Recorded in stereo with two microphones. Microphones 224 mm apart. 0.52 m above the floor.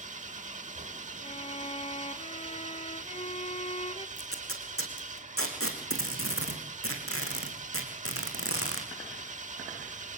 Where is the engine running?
35° right (ahead or behind), 1.0 m.